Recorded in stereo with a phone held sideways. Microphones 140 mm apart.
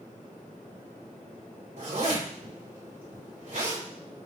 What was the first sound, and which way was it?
A zipper, 85° right.